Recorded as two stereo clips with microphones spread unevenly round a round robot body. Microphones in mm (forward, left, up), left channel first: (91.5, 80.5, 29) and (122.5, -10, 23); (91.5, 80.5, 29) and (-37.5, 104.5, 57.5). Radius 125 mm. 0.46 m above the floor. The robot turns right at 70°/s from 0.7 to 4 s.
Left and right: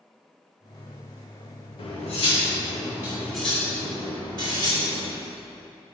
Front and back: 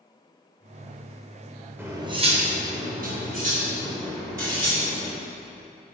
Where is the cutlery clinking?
90° left, 1.0 m; by 5.1 s 115° right, 1.0 m.